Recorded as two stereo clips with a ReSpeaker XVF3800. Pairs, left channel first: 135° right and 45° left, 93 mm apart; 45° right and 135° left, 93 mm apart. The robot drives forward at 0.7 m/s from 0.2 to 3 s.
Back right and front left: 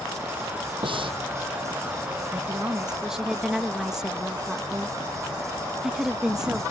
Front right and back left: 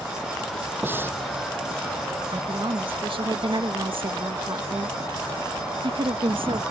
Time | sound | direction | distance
0.8 | breathing | 65° left | ?
2.3 | a woman speaking | 110° left | ?